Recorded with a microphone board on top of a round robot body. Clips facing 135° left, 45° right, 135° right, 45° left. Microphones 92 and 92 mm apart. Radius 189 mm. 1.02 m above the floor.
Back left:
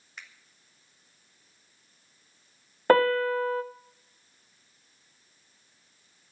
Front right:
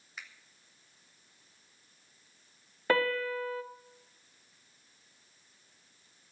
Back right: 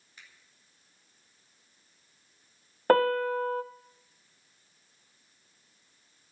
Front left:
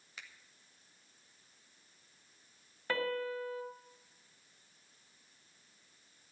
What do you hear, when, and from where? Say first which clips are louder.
0.2 s a finger snap: even, front left 3 dB; 40° left, 2 m
2.9 s a piano: back left 8 dB, back right 12 dB; straight behind, 0.6 m